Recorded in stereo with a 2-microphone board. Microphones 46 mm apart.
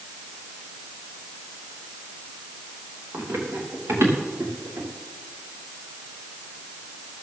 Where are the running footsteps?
75° right (ahead or behind), 6.5 m; by 4.9 s 90° right, 6 m.